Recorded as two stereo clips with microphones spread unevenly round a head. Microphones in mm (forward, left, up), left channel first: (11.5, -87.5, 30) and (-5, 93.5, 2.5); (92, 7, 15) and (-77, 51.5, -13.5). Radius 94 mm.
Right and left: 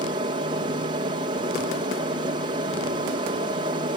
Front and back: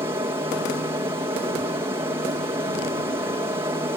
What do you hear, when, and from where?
0.0 s an aircraft: 115° left